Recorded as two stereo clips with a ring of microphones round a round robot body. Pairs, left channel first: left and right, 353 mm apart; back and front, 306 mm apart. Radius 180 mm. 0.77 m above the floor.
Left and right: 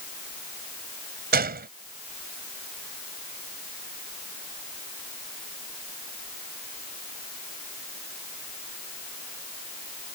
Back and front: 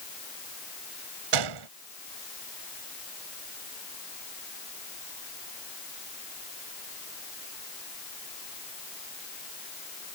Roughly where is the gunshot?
Ahead right.